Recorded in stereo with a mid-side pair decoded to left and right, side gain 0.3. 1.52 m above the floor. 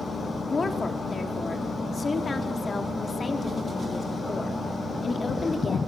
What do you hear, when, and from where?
0.5 s a woman speaking: 45° left, 4 m